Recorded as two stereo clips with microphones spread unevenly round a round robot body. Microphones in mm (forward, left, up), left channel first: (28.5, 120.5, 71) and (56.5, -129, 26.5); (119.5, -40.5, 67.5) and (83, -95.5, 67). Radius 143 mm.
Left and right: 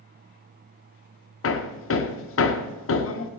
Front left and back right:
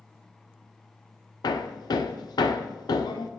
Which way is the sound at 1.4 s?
55° left.